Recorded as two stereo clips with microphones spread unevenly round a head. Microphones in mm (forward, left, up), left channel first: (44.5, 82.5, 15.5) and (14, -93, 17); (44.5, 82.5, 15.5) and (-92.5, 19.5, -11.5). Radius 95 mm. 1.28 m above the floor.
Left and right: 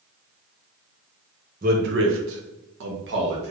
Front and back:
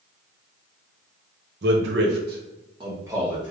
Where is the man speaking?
150° right, 1.1 m; by 3.5 s 70° right, 1.7 m.